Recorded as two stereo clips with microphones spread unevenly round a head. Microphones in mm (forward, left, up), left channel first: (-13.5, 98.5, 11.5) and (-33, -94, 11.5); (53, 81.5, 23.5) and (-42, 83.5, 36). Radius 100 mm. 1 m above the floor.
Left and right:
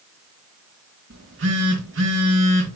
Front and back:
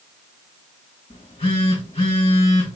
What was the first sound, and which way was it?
A phone buzzing, 60° right.